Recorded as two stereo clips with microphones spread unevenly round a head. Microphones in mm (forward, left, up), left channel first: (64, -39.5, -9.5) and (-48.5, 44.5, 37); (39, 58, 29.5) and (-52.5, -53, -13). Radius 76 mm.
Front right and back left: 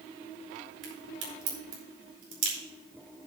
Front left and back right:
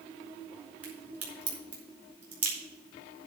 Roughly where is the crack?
Behind left.